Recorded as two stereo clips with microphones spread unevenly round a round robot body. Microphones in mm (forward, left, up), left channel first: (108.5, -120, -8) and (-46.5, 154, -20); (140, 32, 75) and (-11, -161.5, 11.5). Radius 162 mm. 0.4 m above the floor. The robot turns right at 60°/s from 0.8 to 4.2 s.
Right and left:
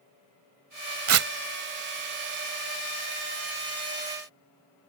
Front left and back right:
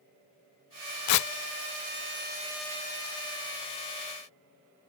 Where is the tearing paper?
75° left; by 1.3 s 90° left.